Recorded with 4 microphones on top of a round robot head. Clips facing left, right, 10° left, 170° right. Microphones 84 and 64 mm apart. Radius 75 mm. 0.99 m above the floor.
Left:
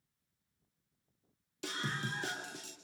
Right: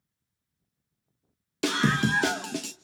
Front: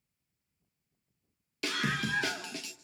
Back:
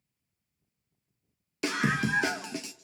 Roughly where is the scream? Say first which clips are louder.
Right 15 dB, back 4 dB; right.